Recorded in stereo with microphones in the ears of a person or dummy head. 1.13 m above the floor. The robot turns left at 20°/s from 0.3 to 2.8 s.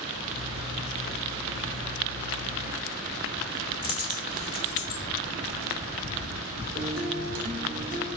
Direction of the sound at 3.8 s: 30° left (ahead or behind).